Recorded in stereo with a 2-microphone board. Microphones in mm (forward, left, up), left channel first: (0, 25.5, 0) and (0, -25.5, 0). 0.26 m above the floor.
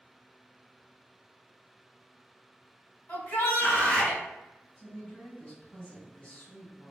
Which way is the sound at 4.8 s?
25° left (ahead or behind).